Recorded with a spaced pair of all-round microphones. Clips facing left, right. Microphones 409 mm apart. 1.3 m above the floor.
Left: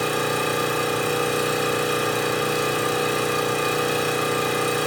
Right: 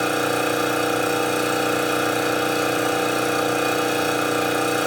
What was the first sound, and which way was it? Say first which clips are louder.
An engine running: right 2 dB; 10° left (ahead or behind).